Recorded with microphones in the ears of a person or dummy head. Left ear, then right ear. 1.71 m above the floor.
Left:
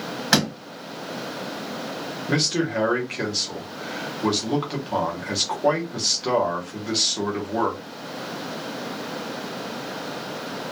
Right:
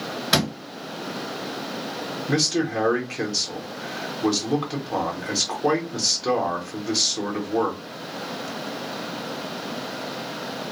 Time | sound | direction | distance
0.3 | a door slam | 45° left (ahead or behind) | 1.5 m
2.3 | a man speaking | 10° left (ahead or behind) | 0.8 m